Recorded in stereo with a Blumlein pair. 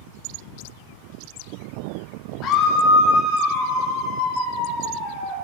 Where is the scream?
35° left, 0.7 m; by 5.3 s 15° left, 3.5 m.